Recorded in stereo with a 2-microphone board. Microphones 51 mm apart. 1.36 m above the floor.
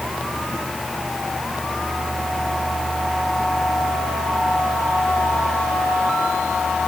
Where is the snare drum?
I don't hear a snare drum.